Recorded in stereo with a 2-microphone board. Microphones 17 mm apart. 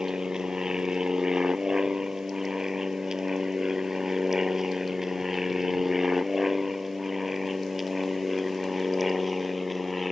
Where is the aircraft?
45° right (ahead or behind); by 10.1 s centre (ahead or behind).